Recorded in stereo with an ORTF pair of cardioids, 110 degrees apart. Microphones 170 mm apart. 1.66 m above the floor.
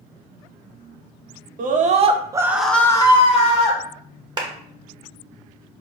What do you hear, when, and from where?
1.6 s a scream: 55° right, 0.9 m; by 3.8 s 45° left, 1.0 m
4.4 s a clap: 25° right, 1.1 m